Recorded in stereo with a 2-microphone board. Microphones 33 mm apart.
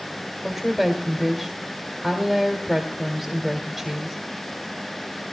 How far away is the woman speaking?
About 1.8 m.